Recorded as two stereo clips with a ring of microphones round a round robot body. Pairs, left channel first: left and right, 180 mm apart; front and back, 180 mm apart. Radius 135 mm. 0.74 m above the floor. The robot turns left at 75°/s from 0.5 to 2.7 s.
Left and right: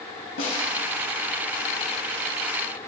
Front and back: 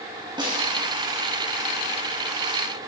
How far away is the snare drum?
About 3.5 m.